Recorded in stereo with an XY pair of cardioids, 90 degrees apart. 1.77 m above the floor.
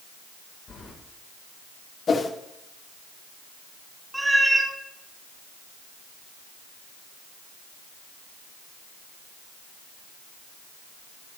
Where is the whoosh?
50° left, 1.7 m.